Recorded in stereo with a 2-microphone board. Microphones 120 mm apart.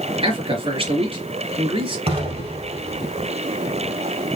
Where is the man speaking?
45° right (ahead or behind), 3 m.